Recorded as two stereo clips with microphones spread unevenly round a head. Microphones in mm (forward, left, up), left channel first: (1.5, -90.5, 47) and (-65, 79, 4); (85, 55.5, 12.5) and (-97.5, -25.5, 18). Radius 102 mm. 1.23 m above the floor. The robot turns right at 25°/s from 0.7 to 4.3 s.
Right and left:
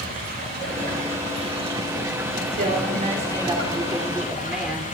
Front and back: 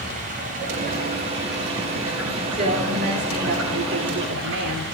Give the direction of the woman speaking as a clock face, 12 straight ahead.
7 o'clock.